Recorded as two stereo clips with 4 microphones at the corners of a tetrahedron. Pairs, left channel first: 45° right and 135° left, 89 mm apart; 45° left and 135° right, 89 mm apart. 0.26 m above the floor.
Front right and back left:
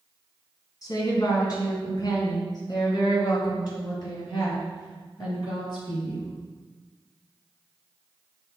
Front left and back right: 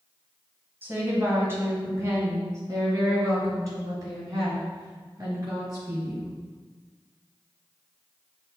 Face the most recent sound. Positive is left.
turn(degrees=-85)